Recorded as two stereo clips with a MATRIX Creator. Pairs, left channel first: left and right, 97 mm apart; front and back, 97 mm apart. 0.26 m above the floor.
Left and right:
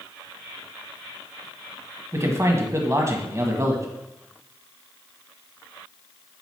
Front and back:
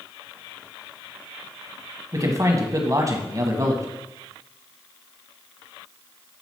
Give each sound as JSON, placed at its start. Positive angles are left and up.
{"t": 2.1, "sound": "a man speaking", "azimuth_deg": -140, "distance_m": 1.5}